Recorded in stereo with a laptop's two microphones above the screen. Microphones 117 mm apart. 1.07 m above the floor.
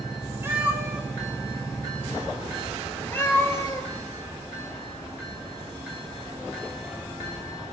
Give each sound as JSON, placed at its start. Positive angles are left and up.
{"t": 0.4, "sound": "a cat meowing", "side_deg": -20, "distance_m": 2.0}